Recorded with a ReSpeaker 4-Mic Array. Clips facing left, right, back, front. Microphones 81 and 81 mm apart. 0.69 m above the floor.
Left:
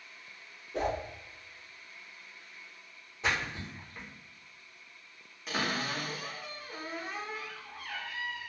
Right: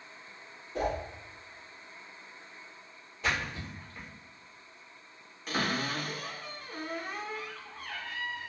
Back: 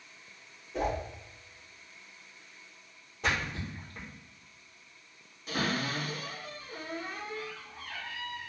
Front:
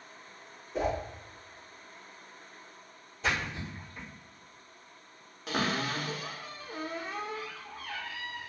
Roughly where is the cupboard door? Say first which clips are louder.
Right 1 dB, front 1 dB; ahead.